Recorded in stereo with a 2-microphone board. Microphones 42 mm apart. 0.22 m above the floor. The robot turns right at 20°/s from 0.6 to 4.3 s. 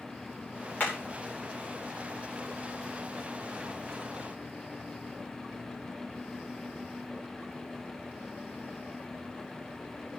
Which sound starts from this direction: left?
Hammering, at 0.8 s.